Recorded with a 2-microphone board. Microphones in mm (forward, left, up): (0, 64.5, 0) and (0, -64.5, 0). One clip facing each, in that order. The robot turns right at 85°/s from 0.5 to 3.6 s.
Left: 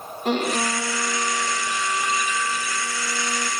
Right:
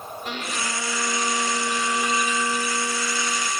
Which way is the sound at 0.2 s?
130° left.